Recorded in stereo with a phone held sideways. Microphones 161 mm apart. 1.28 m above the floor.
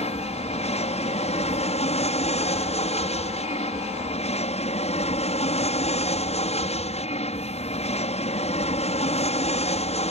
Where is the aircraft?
40° left (ahead or behind).